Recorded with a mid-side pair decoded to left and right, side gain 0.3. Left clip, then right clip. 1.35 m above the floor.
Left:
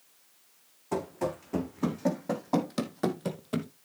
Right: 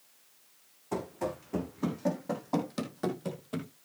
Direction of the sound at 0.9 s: 30° left.